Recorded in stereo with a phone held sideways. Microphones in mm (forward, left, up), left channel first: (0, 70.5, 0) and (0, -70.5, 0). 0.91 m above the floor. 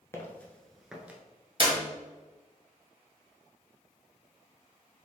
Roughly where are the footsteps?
Centre.